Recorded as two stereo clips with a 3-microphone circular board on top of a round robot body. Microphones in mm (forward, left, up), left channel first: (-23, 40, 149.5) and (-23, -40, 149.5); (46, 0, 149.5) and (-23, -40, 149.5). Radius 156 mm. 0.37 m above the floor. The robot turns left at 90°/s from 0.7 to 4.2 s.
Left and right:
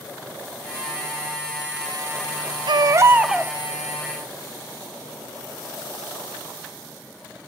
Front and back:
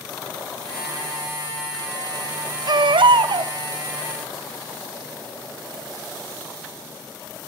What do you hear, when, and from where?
2.7 s a baby crying: 115° right, 0.7 m; by 3.5 s 170° left, 0.7 m